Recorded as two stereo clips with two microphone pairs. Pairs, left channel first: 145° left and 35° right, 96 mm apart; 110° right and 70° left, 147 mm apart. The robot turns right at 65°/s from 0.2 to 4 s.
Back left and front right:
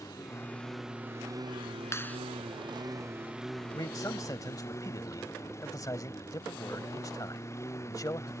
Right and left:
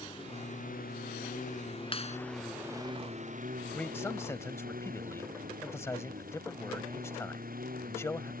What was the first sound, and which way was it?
A lawn mower, 165° right.